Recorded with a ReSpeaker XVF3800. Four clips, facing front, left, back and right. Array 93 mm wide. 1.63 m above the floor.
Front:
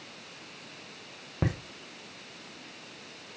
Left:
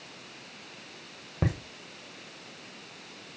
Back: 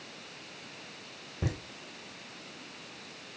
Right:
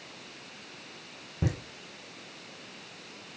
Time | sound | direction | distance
1.4 | laughter | 45° left | 1.4 m